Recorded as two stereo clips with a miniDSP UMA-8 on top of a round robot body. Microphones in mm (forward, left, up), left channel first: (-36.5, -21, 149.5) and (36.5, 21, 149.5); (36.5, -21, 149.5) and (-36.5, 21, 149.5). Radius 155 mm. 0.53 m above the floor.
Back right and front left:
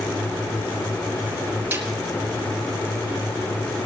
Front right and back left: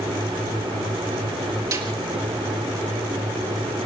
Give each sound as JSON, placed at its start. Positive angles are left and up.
{"t": 1.7, "sound": "a snare drum", "azimuth_deg": 100, "distance_m": 4.5}